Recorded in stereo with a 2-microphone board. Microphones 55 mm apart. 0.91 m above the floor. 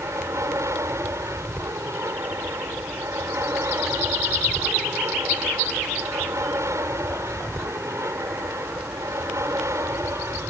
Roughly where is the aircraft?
Right.